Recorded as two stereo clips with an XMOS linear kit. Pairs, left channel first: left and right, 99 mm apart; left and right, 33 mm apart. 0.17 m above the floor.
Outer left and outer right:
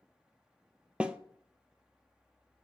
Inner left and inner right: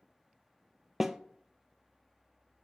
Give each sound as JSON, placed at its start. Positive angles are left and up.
{"t": 1.0, "sound": "a snare drum", "side_deg": -10, "distance_m": 0.6}